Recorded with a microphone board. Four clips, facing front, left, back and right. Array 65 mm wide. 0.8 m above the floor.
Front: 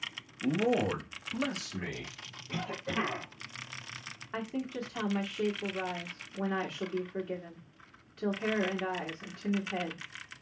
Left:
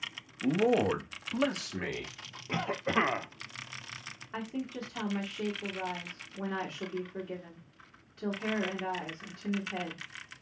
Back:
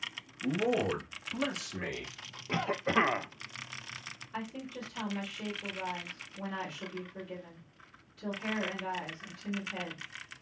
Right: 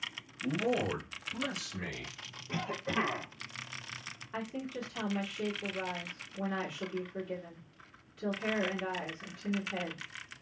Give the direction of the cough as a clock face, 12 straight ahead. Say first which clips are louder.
Left 4 dB, back 6 dB; 7 o'clock.